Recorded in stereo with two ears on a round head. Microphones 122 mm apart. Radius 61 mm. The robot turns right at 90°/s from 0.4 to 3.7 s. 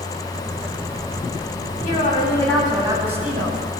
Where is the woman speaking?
110° left, 9.5 m; by 3.6 s 95° right, 9.5 m.